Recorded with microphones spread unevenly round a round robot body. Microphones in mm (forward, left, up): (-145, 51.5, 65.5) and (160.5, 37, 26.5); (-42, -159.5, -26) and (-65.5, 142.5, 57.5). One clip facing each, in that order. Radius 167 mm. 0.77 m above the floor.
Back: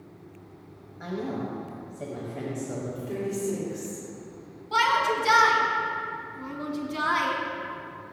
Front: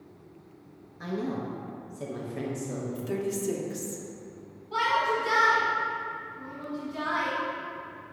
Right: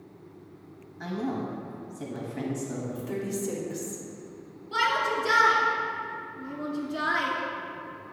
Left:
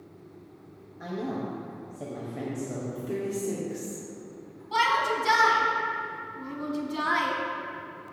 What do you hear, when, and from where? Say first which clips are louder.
1.0 s a woman speaking: even, right 1 dB; 55° right, 1.0 m
3.0 s a woman speaking: front 1 dB, left 3 dB; 10° right, 1.8 m
4.7 s a shout: back 1 dB, left 1 dB; 175° left, 1.5 m